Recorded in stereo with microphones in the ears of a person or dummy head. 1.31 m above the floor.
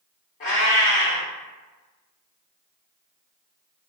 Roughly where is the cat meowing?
Left.